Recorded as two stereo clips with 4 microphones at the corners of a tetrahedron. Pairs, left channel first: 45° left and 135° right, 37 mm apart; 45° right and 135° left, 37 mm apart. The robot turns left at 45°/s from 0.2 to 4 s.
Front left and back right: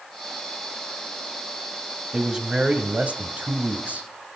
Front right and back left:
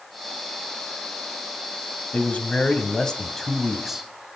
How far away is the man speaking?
About 1.6 m.